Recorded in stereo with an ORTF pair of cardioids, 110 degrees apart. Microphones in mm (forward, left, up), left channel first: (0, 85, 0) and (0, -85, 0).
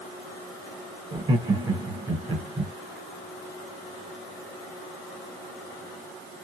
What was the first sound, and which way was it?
Laughter, 30° right.